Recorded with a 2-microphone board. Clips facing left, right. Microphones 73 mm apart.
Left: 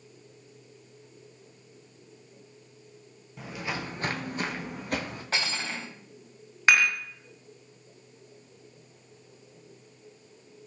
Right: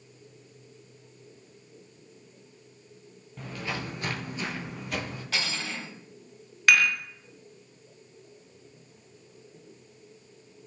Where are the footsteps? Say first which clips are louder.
Even; 5° left (ahead or behind), 0.8 m; by 5.2 s 40° left (ahead or behind), 1.1 m.